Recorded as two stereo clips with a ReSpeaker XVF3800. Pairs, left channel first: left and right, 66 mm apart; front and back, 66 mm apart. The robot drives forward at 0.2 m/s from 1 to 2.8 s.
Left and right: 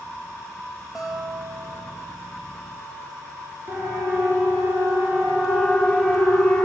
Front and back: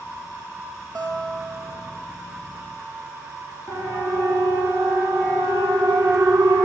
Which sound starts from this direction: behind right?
A siren, at 3.7 s.